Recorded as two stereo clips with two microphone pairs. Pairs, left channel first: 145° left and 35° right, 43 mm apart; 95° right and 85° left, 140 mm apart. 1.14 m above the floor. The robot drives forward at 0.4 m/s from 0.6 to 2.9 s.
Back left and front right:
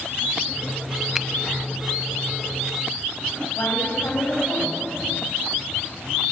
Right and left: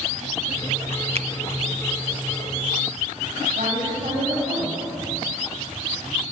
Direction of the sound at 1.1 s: 45° left.